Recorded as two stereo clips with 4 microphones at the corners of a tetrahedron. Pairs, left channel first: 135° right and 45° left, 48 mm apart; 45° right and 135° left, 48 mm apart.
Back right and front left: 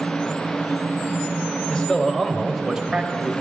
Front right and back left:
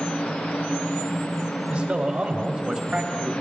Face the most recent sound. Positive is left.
turn(degrees=70)